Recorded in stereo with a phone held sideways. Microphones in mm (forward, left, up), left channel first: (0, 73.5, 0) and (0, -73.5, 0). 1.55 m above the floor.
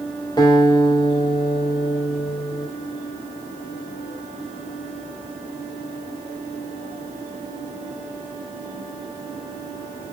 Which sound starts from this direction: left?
A guitar, at 0.4 s.